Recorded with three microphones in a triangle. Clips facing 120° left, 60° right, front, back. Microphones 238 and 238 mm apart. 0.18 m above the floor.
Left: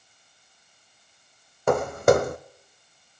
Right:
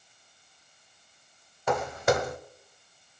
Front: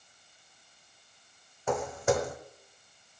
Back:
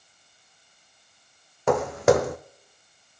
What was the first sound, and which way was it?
Footsteps, 160° left.